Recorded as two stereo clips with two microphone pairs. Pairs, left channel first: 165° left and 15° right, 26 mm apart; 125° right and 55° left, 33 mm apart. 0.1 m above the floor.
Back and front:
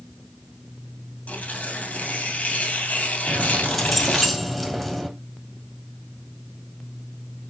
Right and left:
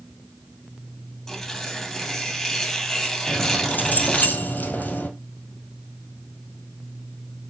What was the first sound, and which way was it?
Tearing paper, 155° left.